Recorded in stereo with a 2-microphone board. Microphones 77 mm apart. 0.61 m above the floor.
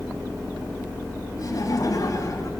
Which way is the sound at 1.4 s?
55° left (ahead or behind).